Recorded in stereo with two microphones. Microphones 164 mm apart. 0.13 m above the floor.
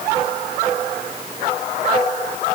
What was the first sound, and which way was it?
Only background noise.